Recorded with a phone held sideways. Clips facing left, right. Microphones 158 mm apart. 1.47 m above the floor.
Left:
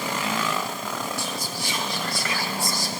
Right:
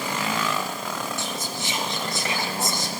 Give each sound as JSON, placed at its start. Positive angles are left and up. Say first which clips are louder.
{"t": 1.2, "sound": "whispering", "louder": "even", "side_deg": -20, "distance_m": 0.9}